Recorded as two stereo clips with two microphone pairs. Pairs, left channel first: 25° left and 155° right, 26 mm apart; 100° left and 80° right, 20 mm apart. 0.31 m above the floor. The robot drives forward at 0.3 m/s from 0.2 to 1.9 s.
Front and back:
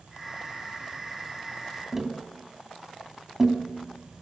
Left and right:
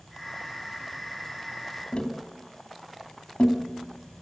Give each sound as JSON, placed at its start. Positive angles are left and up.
{"t": 1.9, "sound": "tapping", "azimuth_deg": 130, "distance_m": 2.5}